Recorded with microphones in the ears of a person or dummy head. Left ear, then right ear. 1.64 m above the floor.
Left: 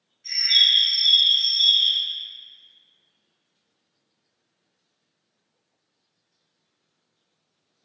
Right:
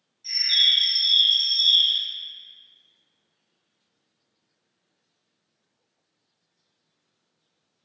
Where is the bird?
20° left (ahead or behind), 0.6 m.